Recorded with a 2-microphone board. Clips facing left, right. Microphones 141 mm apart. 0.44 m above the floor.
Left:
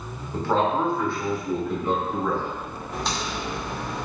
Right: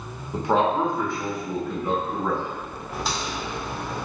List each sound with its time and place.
0.3 s a man speaking: 15° right (ahead or behind), 1.0 m
2.9 s a crack: 5° right (ahead or behind), 0.9 m